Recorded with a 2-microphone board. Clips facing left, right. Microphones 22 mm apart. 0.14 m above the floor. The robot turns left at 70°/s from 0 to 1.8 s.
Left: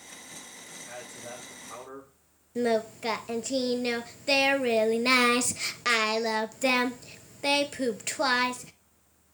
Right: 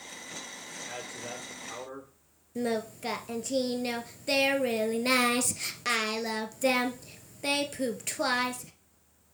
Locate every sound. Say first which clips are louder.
0.8 s a man speaking: right 2 dB; 95° right, 3.5 m; by 2.1 s 160° right, 3.5 m
2.5 s singing: left 4 dB; 20° left (ahead or behind), 0.6 m